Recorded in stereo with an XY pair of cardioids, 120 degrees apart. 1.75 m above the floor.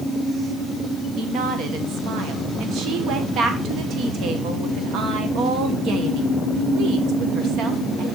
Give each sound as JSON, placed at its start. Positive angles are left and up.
{"t": 1.2, "sound": "a woman speaking", "azimuth_deg": -70, "distance_m": 1.5}